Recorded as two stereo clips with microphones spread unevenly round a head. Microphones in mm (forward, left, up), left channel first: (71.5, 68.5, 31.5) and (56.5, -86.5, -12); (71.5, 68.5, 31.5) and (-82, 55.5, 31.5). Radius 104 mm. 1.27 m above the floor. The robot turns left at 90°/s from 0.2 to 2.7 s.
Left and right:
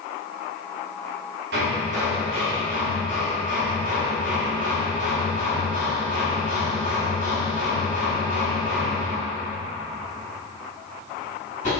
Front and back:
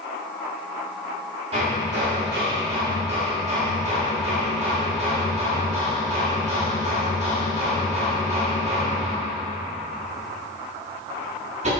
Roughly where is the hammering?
Right.